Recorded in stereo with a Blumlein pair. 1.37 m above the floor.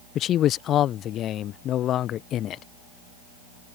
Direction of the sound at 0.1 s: 30° left.